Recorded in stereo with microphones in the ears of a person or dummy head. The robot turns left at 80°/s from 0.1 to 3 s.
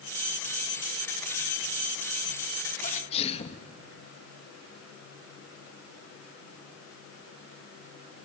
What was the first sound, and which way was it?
A sneeze, 45° left (ahead or behind).